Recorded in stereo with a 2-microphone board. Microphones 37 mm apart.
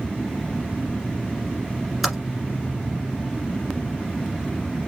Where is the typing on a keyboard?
5° right (ahead or behind), 1.5 m.